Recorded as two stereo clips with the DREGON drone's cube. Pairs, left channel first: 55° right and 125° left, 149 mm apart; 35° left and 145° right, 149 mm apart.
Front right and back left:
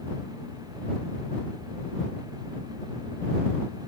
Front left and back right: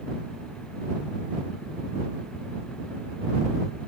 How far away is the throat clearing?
I don't hear throat clearing.